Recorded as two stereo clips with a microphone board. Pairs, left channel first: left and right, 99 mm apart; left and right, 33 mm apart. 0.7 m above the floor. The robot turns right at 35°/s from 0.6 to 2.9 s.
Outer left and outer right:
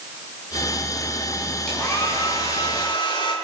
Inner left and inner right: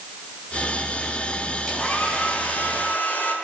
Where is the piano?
No piano in this recording.